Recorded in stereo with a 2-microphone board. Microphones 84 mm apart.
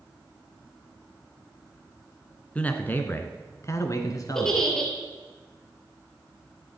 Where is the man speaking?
15° left (ahead or behind), 1.4 m; by 4.7 s 50° left (ahead or behind), 1.7 m.